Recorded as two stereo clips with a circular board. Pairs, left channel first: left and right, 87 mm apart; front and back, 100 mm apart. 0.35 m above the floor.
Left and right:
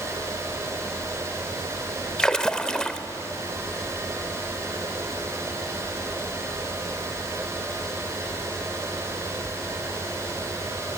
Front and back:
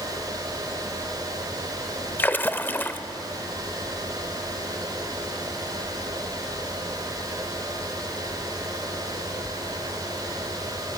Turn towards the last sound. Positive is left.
turn(degrees=25)